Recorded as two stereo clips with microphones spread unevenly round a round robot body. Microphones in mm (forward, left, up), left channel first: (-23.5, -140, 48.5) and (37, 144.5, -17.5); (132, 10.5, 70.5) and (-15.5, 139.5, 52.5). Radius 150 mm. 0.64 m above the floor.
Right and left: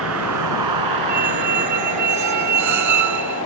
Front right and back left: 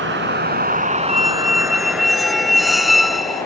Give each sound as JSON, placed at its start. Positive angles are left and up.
{"t": 0.0, "sound": "a vehicle", "azimuth_deg": 120}
{"t": 1.1, "sound": "a squeak", "azimuth_deg": 50}